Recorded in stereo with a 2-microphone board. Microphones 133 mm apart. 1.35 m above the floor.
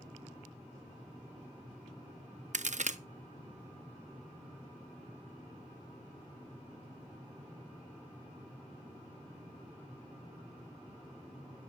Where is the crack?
65° right (ahead or behind), 0.6 m.